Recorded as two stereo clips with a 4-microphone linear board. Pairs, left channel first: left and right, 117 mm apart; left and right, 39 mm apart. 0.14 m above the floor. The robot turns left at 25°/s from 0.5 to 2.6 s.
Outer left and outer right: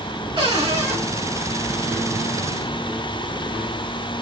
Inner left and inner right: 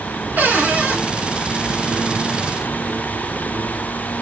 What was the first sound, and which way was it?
A cupboard door, 50° right (ahead or behind).